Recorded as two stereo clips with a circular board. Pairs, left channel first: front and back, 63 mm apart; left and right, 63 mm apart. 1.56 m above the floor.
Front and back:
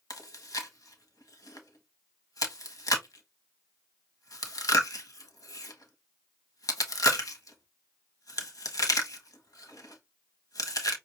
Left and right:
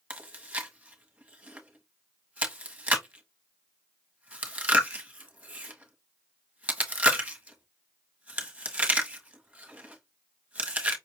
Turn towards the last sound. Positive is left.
turn(degrees=-20)